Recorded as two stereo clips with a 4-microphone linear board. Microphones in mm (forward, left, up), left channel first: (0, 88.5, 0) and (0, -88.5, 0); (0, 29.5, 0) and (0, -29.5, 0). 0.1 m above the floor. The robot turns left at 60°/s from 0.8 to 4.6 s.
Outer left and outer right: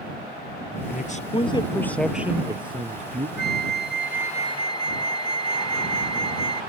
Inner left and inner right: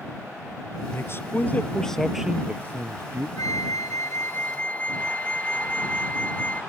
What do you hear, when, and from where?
0.9 s a man speaking: 70° left; by 3.3 s 70° right
3.4 s a flute: 100° left; by 6.6 s 25° left